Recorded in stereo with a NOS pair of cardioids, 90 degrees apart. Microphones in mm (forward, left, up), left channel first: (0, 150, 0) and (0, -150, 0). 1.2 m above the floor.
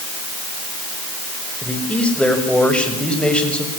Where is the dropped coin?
I don't hear a dropped coin.